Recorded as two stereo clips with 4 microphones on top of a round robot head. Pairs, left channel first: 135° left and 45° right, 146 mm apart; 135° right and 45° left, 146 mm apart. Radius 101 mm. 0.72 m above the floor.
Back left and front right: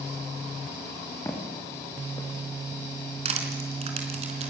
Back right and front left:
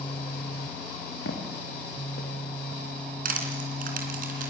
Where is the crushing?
10° left, 3.5 m.